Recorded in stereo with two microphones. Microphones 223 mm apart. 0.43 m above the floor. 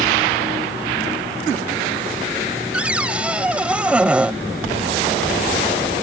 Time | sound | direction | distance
2.7 | a cupboard door | 5° right (ahead or behind) | ?